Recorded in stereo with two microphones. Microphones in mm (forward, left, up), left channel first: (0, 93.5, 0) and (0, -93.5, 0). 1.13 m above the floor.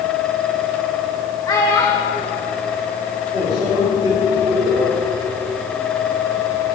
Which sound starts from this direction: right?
A microwave, at 3.3 s.